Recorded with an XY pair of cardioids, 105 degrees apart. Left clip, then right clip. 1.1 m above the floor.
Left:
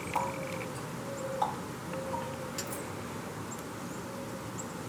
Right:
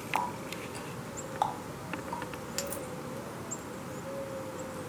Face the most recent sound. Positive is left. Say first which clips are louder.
# even
turn(degrees=-55)